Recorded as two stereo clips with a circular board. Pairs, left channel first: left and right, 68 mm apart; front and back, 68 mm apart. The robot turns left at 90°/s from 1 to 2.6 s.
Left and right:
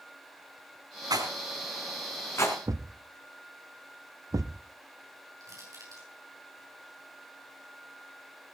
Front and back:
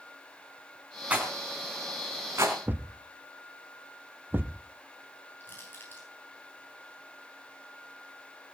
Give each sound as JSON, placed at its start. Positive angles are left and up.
{"t": 1.1, "sound": "a rattle", "azimuth_deg": -110, "distance_m": 4.0}
{"t": 2.7, "sound": "a thud", "azimuth_deg": -120, "distance_m": 0.6}
{"t": 5.4, "sound": "crushing", "azimuth_deg": -55, "distance_m": 6.5}